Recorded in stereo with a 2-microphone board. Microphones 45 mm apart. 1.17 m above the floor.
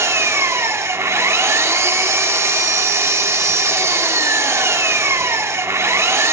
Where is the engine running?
70° right (ahead or behind), 2.5 m.